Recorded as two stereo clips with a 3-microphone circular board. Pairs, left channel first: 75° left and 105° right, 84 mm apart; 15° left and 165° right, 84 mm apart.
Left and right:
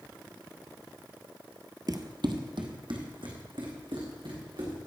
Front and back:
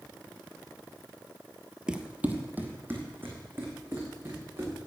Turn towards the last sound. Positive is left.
turn(degrees=-105)